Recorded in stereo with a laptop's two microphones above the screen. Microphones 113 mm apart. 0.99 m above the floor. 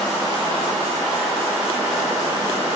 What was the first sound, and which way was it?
Only background noise.